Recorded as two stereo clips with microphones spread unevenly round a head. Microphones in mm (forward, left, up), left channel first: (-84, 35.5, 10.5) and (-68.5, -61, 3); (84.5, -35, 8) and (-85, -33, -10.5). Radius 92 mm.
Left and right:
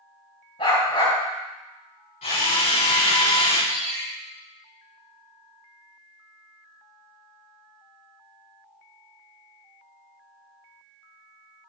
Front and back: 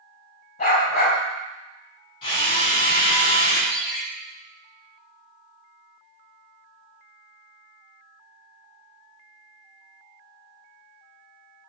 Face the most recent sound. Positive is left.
turn(degrees=-90)